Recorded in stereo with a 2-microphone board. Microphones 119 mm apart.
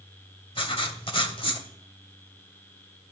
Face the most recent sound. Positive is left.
turn(degrees=50)  # may be behind; listen again after turning